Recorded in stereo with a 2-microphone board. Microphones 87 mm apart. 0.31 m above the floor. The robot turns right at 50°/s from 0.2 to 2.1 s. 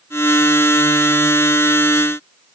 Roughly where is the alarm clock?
I don't hear an alarm clock.